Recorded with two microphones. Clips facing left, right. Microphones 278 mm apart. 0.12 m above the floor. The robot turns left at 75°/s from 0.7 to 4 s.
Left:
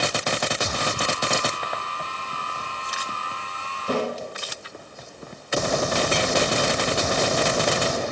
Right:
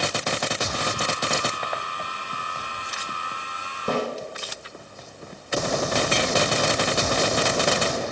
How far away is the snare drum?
About 4 m.